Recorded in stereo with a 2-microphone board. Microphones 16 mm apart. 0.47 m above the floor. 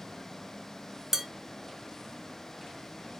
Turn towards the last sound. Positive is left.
turn(degrees=-30)  # may be behind; listen again after turning